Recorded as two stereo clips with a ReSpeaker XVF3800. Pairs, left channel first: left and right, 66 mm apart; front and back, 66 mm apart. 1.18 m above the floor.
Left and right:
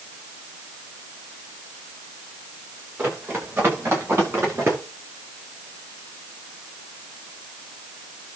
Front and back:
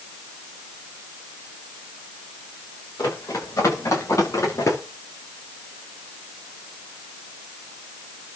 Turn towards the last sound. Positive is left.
turn(degrees=-40)